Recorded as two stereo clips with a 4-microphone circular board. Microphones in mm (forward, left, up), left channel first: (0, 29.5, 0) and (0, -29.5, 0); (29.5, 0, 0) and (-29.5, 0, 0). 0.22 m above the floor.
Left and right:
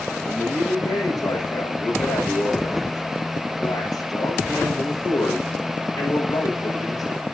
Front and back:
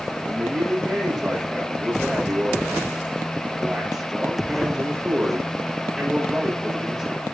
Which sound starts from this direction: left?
A man speaking, at 0.2 s.